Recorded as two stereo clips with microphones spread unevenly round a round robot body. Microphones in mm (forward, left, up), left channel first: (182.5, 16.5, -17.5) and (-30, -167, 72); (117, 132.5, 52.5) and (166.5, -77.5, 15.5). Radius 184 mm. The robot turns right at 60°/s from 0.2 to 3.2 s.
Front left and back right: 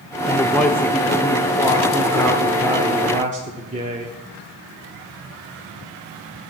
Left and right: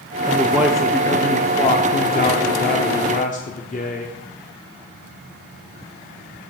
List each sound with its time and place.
0.2 s a man speaking: 35° right, 1.0 m; by 4.2 s 145° left, 1.0 m